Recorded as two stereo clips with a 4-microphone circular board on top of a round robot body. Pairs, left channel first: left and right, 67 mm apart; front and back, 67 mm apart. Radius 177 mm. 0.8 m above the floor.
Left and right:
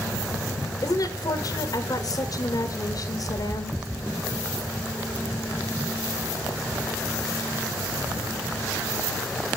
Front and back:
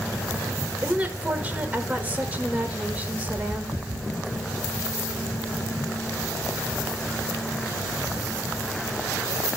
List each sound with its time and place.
0.8 s a woman speaking: 110° left, 1.9 m